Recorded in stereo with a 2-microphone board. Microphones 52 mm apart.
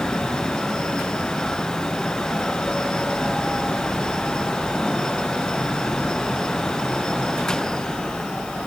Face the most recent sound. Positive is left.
No sound to turn to.